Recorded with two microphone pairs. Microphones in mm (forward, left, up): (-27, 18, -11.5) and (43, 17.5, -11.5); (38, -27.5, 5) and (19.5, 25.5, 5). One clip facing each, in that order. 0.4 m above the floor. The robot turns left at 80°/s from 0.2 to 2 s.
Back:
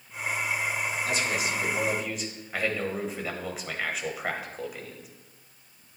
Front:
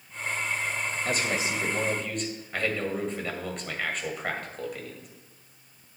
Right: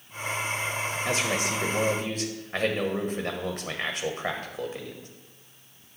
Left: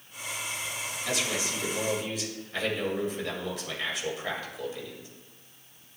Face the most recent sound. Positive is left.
turn(degrees=-100)